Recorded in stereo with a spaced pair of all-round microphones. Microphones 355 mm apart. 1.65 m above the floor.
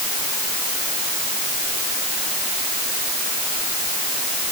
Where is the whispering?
No whispering in this recording.